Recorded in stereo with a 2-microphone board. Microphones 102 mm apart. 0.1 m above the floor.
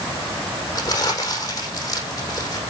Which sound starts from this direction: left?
Crumpling, at 0.8 s.